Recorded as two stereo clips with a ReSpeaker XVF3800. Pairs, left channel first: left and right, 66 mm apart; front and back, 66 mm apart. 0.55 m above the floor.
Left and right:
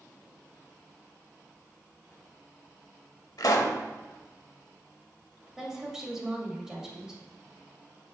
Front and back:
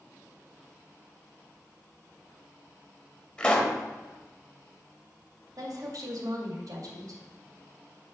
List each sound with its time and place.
3.4 s a pop: 75° left, 1.0 m
5.6 s a woman speaking: 170° right, 2 m